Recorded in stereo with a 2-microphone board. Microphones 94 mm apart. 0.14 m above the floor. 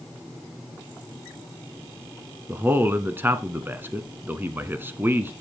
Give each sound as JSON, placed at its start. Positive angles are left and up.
{"t": 2.5, "sound": "a man speaking", "side_deg": -20, "distance_m": 1.1}